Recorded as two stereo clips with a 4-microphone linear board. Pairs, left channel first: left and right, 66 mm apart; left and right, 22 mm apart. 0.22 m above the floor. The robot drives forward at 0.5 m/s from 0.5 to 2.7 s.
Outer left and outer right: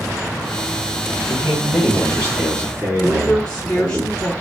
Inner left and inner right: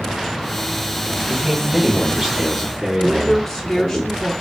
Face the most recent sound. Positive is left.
turn(degrees=10)  # may be behind; listen again after turning